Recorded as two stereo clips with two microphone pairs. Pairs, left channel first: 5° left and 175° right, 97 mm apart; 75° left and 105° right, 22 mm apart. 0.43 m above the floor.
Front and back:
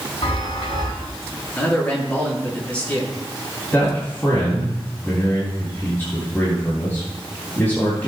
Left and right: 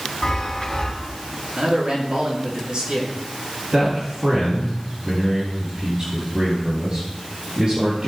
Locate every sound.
0.2 s a chime: 20° left, 3.5 m
1.6 s a man speaking: 70° right, 5 m
3.7 s a man speaking: 60° right, 4 m